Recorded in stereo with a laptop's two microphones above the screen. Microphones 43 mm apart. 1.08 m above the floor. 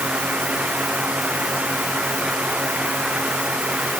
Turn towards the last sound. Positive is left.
turn(degrees=-30)  # may be behind; listen again after turning